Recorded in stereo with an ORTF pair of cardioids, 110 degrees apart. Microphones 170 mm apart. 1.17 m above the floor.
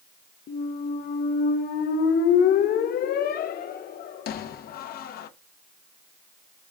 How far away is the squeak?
About 0.8 m.